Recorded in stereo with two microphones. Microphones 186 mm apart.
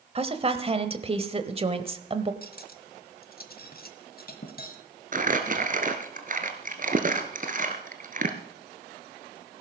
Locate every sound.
0.1 s a woman speaking: 35° right (ahead or behind), 1.1 m
2.4 s cutlery clinking: 60° left (ahead or behind), 1.3 m
5.1 s crumpling: 50° right (ahead or behind), 1.6 m